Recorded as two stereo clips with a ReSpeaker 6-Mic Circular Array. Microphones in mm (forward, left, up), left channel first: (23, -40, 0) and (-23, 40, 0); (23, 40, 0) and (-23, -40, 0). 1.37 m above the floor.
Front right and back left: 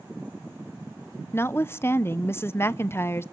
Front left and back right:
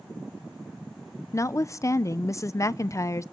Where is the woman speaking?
5° left, 0.5 m.